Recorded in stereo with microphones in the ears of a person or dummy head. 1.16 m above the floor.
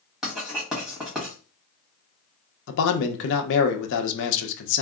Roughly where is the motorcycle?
I don't hear a motorcycle.